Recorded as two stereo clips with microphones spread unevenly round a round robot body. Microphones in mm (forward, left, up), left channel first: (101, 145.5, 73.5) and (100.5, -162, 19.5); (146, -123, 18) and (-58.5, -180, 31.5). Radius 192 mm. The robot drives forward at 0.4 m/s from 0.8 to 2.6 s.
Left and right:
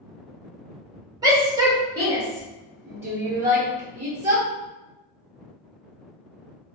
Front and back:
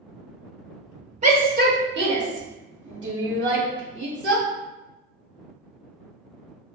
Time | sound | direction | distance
1.2 | a shout | 135° right | 0.7 m